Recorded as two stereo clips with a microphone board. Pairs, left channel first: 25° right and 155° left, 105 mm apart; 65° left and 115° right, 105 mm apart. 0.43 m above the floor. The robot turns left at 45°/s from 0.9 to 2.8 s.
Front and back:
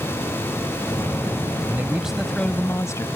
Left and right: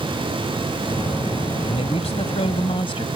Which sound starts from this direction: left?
A man speaking, at 1.7 s.